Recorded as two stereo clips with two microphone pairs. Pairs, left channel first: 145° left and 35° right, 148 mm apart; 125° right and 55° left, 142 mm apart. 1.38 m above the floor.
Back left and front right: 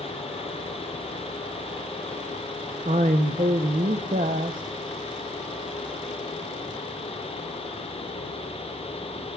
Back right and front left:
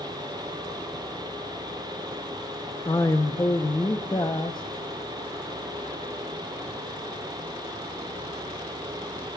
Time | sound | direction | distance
2.9 | a man speaking | 65° right | 0.7 m